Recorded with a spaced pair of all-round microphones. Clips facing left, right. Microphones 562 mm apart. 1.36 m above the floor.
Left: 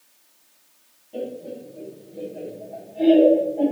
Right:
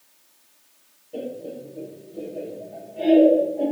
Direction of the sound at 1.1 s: 5° left (ahead or behind).